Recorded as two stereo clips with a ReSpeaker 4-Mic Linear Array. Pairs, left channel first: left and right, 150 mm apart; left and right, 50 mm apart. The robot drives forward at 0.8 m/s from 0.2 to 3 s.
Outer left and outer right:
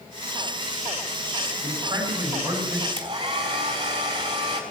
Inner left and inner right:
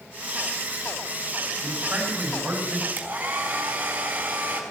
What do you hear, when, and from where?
1.6 s a man speaking: 25° right (ahead or behind), 5.5 m; by 2.9 s 30° right (ahead or behind), 4.5 m
3.0 s a hair dryer: 30° right (ahead or behind), 4.5 m